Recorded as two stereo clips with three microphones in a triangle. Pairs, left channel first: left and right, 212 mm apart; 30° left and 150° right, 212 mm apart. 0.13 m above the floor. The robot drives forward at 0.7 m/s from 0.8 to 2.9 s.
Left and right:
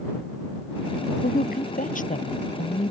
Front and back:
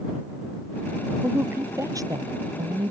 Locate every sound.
1.2 s a woman speaking: 130° left; by 2.9 s 145° left